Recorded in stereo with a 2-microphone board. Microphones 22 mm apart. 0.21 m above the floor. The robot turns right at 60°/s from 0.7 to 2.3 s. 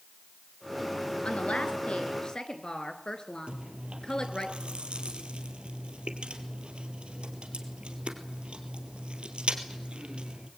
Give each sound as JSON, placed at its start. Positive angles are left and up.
{"t": 1.2, "sound": "a woman speaking", "azimuth_deg": 75, "distance_m": 2.5}
{"t": 3.5, "sound": "chewing", "side_deg": -65, "distance_m": 2.5}